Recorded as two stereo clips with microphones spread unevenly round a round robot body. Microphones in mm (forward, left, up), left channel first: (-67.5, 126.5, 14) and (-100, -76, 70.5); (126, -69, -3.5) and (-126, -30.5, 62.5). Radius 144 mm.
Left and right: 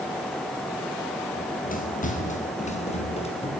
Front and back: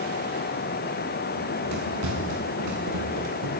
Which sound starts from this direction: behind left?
Running footsteps, at 1.4 s.